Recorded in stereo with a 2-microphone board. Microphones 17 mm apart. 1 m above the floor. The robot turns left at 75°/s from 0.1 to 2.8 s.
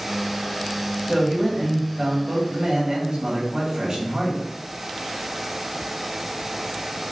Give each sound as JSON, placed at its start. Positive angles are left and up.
{"t": 1.1, "sound": "a man speaking", "azimuth_deg": 5, "distance_m": 1.7}